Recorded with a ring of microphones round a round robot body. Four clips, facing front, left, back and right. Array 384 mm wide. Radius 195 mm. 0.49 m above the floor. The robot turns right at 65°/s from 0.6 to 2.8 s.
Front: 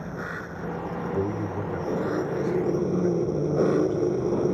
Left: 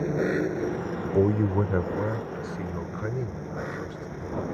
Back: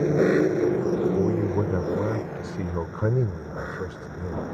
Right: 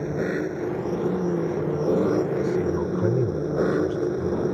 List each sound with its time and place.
0.0 s an engine running: straight behind; by 4.6 s 35° right
1.1 s a man speaking: 95° left; by 4.5 s 160° right